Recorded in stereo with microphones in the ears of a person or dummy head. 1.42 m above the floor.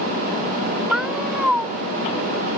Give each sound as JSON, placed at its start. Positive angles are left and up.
{"t": 0.9, "sound": "a cat meowing", "side_deg": -5}